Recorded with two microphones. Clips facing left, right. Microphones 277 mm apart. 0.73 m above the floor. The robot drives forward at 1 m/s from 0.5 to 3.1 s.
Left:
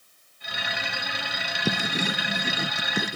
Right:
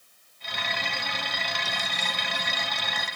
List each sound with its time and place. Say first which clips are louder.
1.6 s writing: left 11 dB; 70° left (ahead or behind); by 3.2 s 75° left (ahead or behind)